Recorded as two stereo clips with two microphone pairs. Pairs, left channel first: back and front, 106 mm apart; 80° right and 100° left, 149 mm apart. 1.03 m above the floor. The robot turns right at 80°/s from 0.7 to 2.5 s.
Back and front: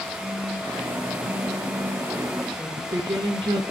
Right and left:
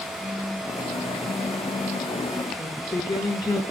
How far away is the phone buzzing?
About 2 m.